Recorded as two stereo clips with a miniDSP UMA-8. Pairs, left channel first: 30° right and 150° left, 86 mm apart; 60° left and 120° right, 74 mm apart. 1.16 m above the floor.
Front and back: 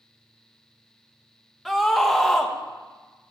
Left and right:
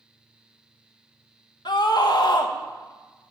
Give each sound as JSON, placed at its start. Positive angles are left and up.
{"t": 1.6, "sound": "a scream", "azimuth_deg": 60, "distance_m": 1.2}